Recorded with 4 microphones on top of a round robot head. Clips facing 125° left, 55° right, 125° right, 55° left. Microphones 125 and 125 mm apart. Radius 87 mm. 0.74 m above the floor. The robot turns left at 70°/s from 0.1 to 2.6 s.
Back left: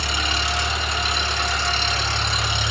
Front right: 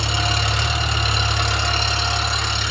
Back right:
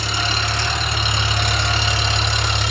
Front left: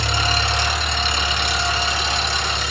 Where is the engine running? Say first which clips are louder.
Front right 3 dB, front left 2 dB; 15° left, 1.8 m; by 2.7 s 160° right, 1.8 m.